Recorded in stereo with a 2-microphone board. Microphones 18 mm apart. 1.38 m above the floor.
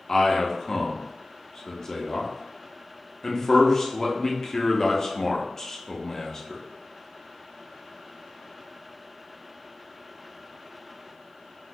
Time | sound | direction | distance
0.1 | a man speaking | 25° left (ahead or behind) | 0.6 m